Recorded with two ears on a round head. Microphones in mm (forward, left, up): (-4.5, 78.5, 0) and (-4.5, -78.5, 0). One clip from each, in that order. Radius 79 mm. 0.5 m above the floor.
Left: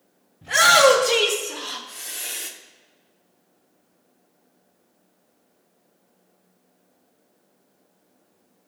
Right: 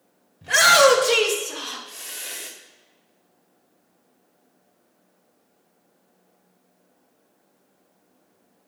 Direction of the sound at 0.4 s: 40° right (ahead or behind).